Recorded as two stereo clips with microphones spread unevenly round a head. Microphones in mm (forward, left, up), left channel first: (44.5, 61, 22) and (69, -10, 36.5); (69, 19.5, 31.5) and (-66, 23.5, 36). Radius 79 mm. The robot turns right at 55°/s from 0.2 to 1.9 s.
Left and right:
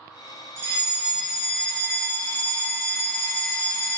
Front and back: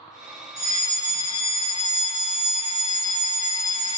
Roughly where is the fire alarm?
Behind right.